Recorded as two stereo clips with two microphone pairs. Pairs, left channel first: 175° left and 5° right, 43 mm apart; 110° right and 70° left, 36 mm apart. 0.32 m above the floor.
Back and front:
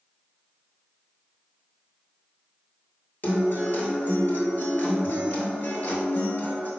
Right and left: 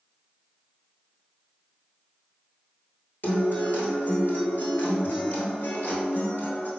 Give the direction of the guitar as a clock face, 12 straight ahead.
5 o'clock.